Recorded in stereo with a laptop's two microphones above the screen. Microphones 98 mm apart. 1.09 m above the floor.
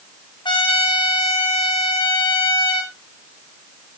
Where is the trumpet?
55° left (ahead or behind), 2.5 m.